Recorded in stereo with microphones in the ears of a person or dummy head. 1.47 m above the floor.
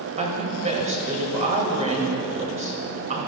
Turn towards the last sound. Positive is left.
turn(degrees=-35)  # may be behind; listen again after turning